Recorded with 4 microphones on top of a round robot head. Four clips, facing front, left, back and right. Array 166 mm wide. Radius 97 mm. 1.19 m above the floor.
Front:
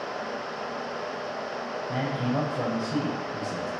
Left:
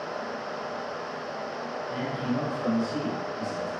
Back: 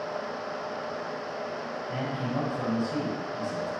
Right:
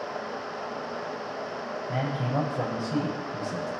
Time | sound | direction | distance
1.9 | a man speaking | 55° right | 7.5 m